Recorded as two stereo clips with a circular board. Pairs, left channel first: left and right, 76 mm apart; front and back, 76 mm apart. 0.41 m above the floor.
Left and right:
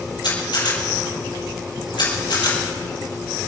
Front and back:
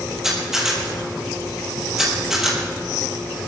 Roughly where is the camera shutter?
Left.